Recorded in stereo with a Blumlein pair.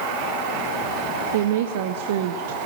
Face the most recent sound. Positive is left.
turn(degrees=-55)